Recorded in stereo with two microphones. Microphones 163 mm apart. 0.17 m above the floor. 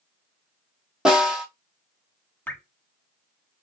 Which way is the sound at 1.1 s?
5° right (ahead or behind).